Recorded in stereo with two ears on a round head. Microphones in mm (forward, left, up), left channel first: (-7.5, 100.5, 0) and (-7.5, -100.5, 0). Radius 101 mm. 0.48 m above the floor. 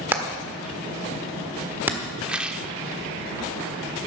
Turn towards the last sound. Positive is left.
turn(degrees=-5)  # may be behind; listen again after turning